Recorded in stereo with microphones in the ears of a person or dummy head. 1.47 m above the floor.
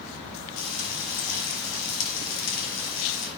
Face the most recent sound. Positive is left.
turn(degrees=70)  # may be behind; listen again after turning